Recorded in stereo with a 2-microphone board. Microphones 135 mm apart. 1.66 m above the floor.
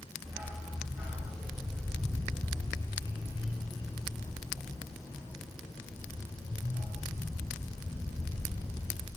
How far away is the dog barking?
About 1.9 m.